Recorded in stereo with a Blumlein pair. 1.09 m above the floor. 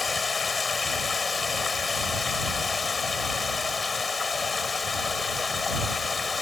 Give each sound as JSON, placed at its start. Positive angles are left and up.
{"t": 0.0, "sound": "running water", "azimuth_deg": 15}